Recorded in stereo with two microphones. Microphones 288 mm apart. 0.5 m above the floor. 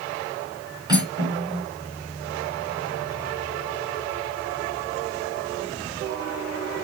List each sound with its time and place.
0.9 s cutlery clinking: 15° right (ahead or behind), 4 m